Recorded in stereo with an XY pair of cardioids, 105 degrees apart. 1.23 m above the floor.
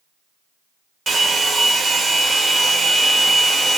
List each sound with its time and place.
1.1 s a hair dryer: 40° right, 0.8 m